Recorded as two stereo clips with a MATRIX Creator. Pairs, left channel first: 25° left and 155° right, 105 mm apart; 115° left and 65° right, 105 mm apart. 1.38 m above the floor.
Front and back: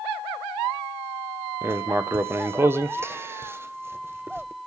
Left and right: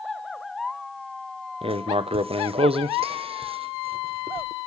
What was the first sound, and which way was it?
Writing, 90° right.